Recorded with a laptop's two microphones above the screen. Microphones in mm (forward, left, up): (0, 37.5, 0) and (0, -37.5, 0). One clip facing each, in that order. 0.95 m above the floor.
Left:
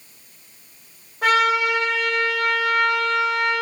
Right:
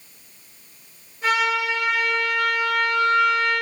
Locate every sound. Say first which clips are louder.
1.2 s a trumpet: left 4 dB; 65° left (ahead or behind), 3.5 m